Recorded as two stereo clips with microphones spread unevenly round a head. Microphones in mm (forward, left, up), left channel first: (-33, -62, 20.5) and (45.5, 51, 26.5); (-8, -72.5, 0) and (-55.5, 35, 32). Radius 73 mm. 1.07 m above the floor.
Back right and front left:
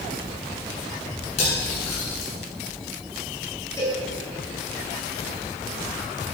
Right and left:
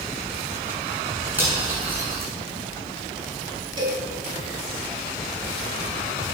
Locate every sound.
1.4 s cutlery clinking: 170° right, 7.5 m
3.8 s a cowbell: 165° left, 3.5 m